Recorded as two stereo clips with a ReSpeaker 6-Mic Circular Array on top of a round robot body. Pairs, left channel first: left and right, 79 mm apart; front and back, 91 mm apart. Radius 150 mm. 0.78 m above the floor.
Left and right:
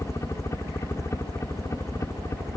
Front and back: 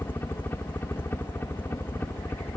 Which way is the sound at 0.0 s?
55° left.